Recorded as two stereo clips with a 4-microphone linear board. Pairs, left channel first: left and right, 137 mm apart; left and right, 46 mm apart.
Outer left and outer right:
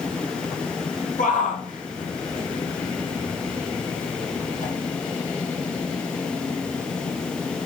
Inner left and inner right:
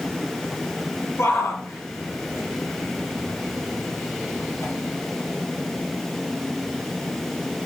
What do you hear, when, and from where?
1.2 s a shout: 75° left (ahead or behind), 7.5 m